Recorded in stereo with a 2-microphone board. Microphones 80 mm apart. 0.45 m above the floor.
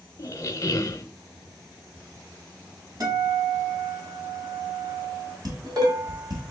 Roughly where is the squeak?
Left.